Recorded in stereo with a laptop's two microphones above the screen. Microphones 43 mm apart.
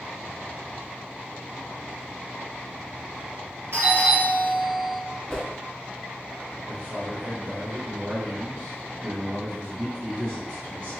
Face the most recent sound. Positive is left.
turn(degrees=-55)  # may be behind; listen again after turning